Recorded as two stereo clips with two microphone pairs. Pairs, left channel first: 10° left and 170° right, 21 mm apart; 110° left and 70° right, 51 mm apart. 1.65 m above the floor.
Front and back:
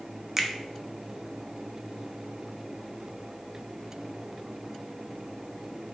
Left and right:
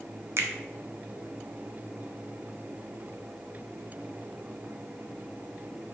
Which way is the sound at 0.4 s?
105° right.